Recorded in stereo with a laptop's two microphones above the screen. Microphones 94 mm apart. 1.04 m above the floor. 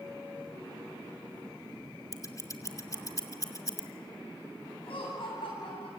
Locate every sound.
2.1 s scissors: 40° left (ahead or behind), 2.5 m
4.8 s laughter: 70° left (ahead or behind), 8.5 m